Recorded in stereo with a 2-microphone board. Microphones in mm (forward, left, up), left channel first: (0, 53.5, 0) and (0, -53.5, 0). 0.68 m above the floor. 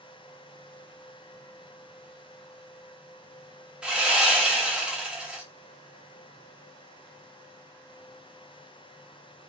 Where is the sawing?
5° right (ahead or behind), 1.1 m.